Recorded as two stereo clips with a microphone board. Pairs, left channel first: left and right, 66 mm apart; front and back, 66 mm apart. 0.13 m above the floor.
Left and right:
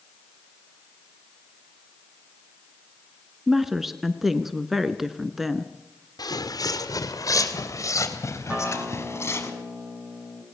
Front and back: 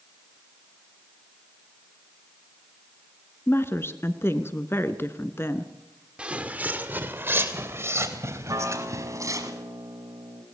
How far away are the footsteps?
About 2 m.